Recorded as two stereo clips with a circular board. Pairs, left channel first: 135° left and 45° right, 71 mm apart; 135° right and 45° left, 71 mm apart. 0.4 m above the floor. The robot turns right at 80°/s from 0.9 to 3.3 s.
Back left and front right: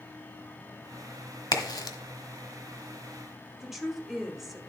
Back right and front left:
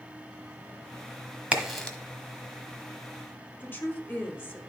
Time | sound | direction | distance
1.5 | a crack | 115° left | 1.3 m
3.6 | a woman speaking | 125° right | 1.5 m